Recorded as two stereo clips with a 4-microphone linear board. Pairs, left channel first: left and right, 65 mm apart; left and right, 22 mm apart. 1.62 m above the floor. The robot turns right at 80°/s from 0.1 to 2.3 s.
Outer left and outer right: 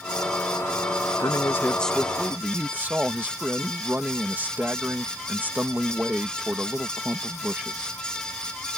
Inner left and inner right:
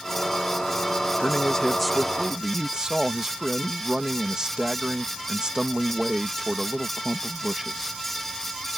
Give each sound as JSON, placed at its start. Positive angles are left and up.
{"t": 1.2, "sound": "a man speaking", "azimuth_deg": 115}